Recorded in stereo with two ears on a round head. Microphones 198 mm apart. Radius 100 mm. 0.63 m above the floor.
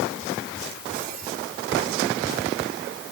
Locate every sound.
Only background noise.